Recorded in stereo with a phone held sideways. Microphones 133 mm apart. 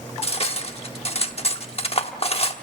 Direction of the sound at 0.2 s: 50° left (ahead or behind).